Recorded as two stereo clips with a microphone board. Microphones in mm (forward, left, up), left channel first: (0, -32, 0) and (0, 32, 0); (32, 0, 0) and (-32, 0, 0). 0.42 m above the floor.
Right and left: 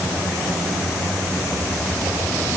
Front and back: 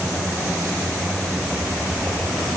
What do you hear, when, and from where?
Only background noise.